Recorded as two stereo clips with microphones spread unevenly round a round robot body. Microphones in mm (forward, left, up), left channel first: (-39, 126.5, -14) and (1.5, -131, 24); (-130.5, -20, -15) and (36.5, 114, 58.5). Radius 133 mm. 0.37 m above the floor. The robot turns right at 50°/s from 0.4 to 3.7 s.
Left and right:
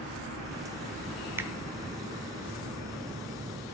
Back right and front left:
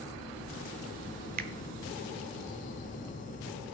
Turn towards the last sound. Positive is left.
turn(degrees=125)